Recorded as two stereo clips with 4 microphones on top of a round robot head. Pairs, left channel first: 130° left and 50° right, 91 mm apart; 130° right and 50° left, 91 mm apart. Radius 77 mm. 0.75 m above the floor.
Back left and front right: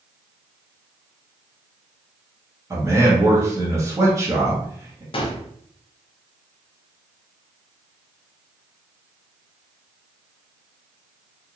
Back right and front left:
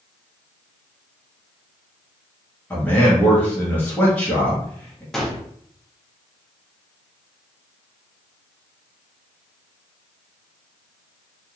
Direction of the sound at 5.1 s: 140° left.